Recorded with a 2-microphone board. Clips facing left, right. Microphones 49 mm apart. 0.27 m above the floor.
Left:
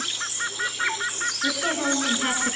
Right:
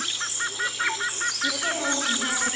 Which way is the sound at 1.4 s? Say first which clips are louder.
Left 2 dB; 15° left (ahead or behind).